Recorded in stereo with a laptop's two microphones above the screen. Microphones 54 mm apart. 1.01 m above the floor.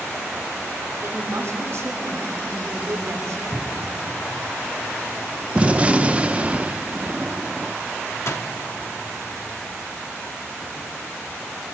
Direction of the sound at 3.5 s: 20° right (ahead or behind).